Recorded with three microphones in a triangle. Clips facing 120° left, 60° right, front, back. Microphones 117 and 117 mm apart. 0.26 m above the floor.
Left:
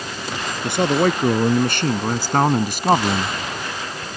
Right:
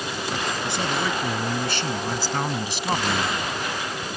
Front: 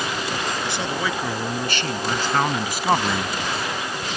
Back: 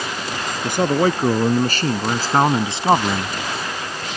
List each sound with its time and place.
0.6 s a man speaking: 145° left; by 3.4 s 105° left